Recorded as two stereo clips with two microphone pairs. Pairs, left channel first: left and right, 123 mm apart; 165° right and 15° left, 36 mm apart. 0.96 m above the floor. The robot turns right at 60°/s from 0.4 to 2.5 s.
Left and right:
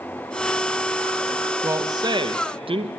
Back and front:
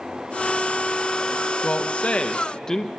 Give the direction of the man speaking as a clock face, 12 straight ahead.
5 o'clock.